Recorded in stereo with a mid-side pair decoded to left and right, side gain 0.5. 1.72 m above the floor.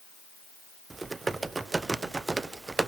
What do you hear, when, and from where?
0.9 s typing on a keyboard: 25° right, 1.0 m